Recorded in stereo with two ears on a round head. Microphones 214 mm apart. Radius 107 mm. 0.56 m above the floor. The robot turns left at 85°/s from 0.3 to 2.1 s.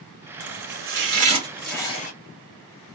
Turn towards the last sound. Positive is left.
turn(degrees=35)  # may be behind; listen again after turning